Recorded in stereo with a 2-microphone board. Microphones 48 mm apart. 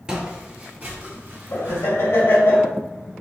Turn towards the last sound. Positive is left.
turn(degrees=70)  # may be behind; listen again after turning